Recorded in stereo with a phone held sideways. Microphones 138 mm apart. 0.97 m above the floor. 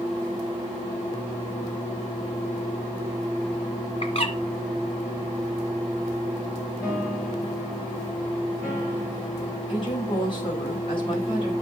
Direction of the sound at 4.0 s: 45° left (ahead or behind).